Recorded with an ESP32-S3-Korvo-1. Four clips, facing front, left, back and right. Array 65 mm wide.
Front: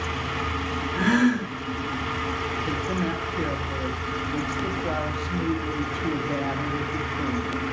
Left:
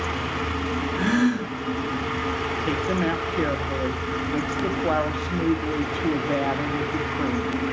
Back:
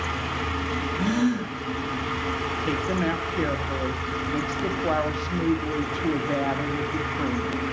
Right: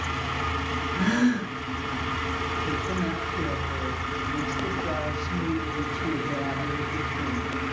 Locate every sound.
0.9 s a gasp: 5° right, 4 m
2.6 s a woman speaking: 125° left, 1.2 m